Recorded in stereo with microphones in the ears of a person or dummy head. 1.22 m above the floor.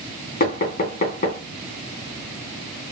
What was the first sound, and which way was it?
Knocking, 45° left (ahead or behind).